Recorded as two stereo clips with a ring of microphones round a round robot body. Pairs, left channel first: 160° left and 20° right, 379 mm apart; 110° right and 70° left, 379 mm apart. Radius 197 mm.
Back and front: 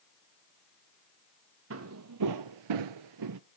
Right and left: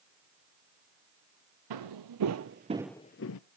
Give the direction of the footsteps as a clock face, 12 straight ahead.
11 o'clock.